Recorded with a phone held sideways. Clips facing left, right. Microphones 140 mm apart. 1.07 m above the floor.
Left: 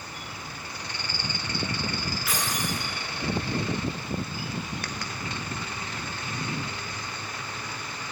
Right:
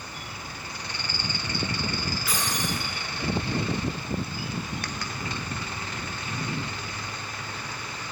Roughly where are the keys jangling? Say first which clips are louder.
Even; centre.